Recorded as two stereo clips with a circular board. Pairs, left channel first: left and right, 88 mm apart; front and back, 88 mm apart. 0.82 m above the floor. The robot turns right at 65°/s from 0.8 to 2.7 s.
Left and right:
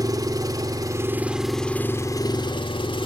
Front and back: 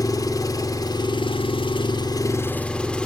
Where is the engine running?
45° right, 2 m; by 3.1 s 80° left, 2 m.